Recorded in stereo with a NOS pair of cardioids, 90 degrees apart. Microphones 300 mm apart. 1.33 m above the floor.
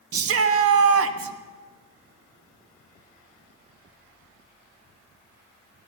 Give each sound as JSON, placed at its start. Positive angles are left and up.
{"t": 0.1, "sound": "a shout", "azimuth_deg": -55, "distance_m": 1.0}